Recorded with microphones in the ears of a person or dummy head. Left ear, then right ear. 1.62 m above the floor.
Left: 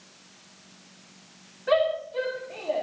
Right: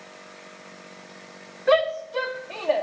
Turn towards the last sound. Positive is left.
turn(degrees=-60)  # may be behind; listen again after turning